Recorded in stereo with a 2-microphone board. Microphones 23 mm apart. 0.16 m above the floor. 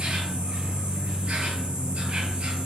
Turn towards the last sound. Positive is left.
turn(degrees=-60)  # may be behind; listen again after turning